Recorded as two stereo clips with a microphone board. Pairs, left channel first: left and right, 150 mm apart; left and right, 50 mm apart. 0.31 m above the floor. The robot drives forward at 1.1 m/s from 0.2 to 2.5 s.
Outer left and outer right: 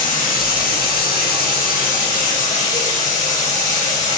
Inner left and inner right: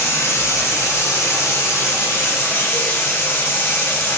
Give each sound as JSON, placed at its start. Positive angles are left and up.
{"t": 0.0, "sound": "running water", "side_deg": 65, "distance_m": 2.5}